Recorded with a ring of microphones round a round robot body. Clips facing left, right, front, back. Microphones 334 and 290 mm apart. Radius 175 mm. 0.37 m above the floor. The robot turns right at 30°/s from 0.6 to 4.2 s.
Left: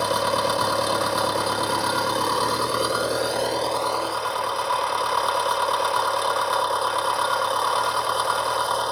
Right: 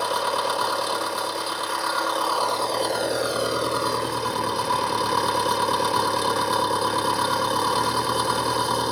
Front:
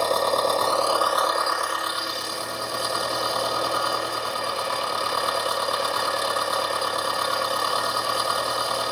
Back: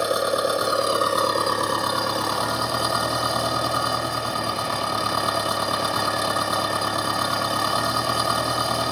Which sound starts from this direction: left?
An engine running, at 0.0 s.